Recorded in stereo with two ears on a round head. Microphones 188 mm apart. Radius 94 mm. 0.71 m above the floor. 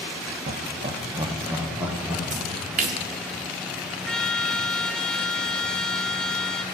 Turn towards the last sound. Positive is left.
turn(degrees=5)  # may be behind; listen again after turning